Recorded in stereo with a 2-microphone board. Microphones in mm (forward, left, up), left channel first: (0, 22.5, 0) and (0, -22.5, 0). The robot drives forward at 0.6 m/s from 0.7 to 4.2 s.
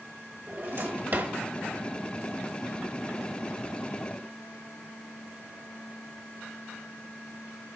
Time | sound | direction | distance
0.5 | a drawer | 50° right (ahead or behind) | 1.1 m